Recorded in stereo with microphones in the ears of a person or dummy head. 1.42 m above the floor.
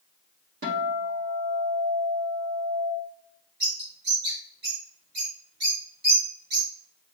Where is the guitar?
70° right (ahead or behind), 2.5 m.